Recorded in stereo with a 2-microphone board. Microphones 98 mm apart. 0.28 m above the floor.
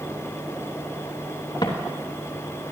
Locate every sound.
1.6 s footsteps: 50° left (ahead or behind), 3 m